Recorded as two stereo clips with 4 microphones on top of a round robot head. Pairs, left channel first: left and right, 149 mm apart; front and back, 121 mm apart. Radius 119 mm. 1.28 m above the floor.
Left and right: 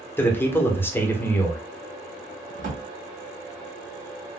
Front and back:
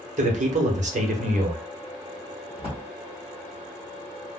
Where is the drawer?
120° right, 1.5 m.